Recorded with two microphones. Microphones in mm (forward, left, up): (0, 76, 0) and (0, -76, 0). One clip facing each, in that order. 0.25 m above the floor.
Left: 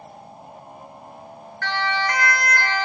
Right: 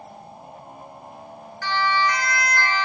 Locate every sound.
1.6 s a siren: 60° left (ahead or behind), 3.5 m; by 2.9 s 45° left (ahead or behind), 3.5 m